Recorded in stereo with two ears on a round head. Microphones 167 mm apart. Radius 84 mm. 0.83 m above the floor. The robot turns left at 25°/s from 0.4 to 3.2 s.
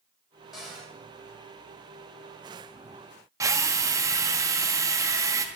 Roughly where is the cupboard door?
Centre.